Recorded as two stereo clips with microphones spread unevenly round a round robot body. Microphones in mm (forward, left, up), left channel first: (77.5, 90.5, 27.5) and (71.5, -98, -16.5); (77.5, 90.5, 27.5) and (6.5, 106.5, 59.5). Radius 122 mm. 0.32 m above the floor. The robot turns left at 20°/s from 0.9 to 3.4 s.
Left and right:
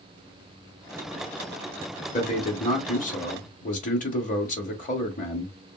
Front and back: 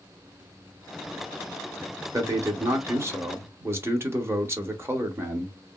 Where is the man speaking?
125° left, 0.9 m; by 5.6 s 100° left, 0.9 m.